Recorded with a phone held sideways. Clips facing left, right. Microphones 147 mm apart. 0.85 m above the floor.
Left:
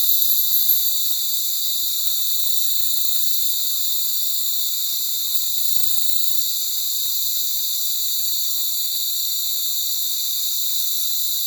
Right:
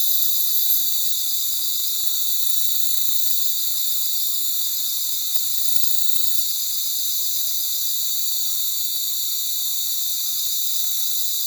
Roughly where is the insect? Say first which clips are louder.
Left 2 dB; left.